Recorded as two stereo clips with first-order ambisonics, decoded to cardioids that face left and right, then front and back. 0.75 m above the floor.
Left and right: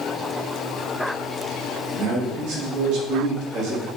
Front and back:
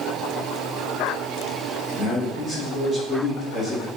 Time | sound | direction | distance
1.9 | a man speaking | 90° right | 1.6 m